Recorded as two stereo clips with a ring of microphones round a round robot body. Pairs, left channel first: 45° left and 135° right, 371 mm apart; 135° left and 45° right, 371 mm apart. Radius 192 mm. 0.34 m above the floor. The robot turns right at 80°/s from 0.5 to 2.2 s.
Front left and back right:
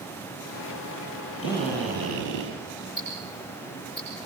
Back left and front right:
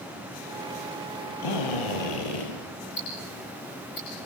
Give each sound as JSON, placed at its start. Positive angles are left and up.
{"t": 1.4, "sound": "a drill", "azimuth_deg": 100, "distance_m": 8.0}
{"t": 3.0, "sound": "ticking", "azimuth_deg": 100, "distance_m": 8.5}